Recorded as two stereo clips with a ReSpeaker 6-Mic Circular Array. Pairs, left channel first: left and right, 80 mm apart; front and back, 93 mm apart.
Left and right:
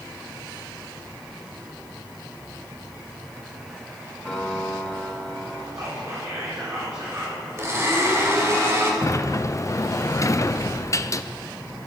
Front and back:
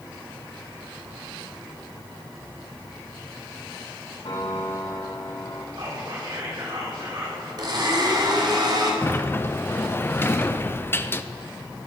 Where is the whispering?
140° right, 3.5 m.